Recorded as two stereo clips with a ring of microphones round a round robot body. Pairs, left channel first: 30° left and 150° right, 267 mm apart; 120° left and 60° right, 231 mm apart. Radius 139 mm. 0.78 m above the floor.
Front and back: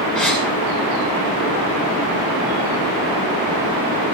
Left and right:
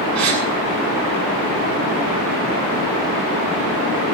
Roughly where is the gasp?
Ahead right.